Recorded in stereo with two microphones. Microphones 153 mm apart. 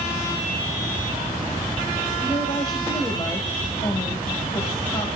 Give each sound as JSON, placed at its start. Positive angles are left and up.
{"t": 2.2, "sound": "a woman speaking", "side_deg": 30, "distance_m": 2.5}